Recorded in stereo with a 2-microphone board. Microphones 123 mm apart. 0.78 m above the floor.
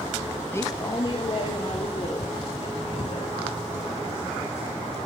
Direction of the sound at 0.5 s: 15° left (ahead or behind).